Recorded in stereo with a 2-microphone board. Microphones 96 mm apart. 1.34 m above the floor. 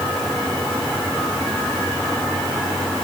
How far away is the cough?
I don't hear a cough.